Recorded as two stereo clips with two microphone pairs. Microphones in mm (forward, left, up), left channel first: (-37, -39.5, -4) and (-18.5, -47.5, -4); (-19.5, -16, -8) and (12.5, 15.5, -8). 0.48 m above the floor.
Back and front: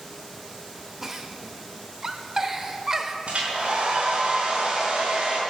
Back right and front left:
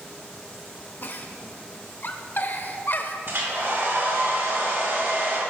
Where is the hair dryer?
5° left, 3.5 m.